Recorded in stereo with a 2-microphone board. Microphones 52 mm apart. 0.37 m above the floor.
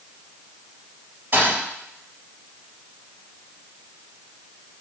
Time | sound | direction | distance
1.3 | a thud | 35° right (ahead or behind) | 3.5 m